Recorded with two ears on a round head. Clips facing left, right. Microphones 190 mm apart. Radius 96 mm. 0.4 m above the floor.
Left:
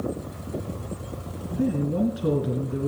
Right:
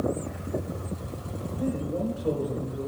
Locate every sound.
1.5 s a man speaking: 75° left (ahead or behind), 3.5 m